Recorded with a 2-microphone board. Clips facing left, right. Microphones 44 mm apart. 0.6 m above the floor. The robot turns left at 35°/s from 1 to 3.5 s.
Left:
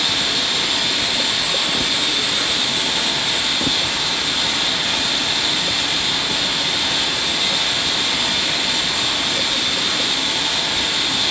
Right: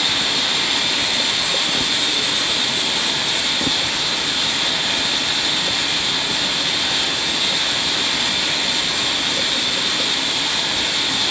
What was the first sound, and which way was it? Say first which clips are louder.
Running water: even; 170° right.